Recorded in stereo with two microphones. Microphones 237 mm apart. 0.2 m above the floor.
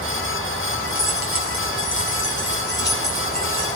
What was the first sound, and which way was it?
Keys jangling, 70° left (ahead or behind).